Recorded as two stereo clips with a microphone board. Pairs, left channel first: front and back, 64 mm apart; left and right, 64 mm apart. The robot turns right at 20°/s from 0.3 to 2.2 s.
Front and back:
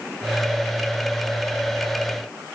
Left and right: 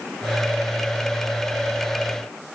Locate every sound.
Only background noise.